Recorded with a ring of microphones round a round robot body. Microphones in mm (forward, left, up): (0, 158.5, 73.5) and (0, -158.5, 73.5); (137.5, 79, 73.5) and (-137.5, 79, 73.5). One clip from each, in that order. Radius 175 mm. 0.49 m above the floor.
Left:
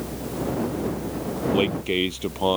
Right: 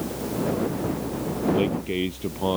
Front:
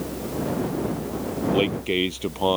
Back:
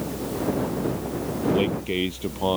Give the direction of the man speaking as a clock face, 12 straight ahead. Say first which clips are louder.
Left 2 dB, front 4 dB; 11 o'clock.